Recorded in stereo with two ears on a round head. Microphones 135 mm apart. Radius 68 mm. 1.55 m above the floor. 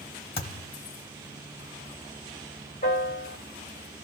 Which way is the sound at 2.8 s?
50° left (ahead or behind).